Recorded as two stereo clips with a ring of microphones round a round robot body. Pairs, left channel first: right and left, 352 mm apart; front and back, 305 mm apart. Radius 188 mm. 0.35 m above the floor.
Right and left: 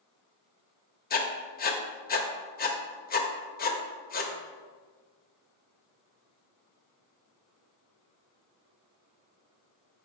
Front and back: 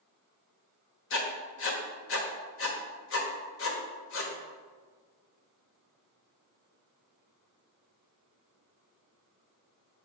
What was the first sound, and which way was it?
Writing, 30° right.